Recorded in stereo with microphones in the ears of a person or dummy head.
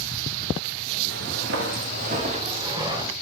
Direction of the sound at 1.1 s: 55° right (ahead or behind).